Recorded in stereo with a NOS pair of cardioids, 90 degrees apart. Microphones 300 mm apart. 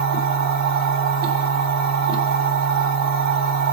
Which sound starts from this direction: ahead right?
A machine running, at 0.0 s.